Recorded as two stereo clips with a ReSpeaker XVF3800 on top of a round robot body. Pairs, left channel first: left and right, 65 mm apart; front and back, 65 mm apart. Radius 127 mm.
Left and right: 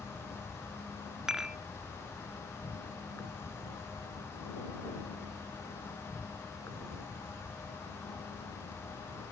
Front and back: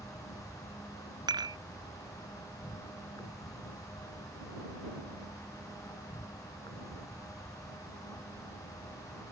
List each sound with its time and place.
0.0 s an insect: 35° left
1.3 s dishes clattering: 175° right